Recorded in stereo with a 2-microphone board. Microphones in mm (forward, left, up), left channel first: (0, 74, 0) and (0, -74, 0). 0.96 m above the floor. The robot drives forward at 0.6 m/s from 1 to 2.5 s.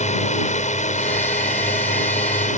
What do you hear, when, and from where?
0.0 s a drone: 50° left (ahead or behind); by 2.6 s 55° left (ahead or behind)